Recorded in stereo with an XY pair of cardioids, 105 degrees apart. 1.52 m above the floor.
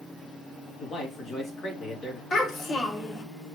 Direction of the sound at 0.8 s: 40° left.